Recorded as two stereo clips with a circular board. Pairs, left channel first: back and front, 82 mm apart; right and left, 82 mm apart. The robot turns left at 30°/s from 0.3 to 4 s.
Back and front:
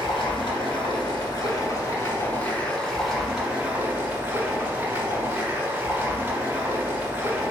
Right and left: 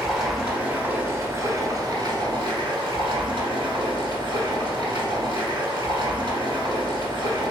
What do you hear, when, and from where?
0.0 s running water: 170° left, 1.2 m; by 7.5 s 60° left, 1.2 m